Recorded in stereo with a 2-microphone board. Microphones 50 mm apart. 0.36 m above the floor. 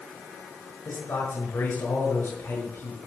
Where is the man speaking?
50° left (ahead or behind), 6 m.